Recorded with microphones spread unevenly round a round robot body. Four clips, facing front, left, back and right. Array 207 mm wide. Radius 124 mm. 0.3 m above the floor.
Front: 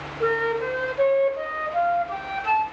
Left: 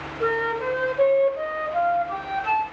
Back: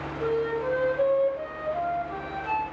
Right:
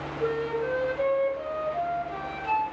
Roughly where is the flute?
Ahead left.